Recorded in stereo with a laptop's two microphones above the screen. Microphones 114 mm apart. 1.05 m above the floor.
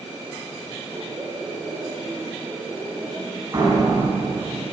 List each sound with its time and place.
0.9 s laughter: 40° right (ahead or behind), 2.5 m; by 3.4 s 10° right (ahead or behind), 2 m
3.5 s a door slam: 35° right (ahead or behind), 5.5 m